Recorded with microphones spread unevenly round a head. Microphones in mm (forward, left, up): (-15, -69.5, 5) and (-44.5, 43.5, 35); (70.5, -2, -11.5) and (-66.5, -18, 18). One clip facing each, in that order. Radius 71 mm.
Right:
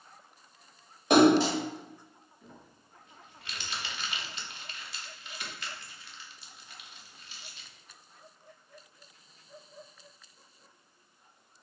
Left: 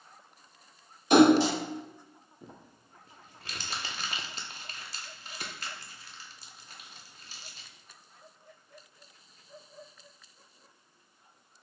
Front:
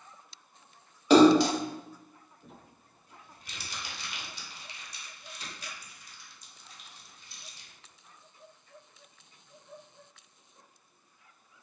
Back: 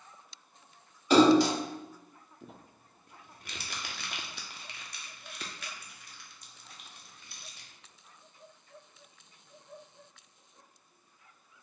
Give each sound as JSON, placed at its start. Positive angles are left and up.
{"t": 1.1, "sound": "a splash", "azimuth_deg": -20, "distance_m": 1.6}
{"t": 2.4, "sound": "crumpling", "azimuth_deg": 150, "distance_m": 0.6}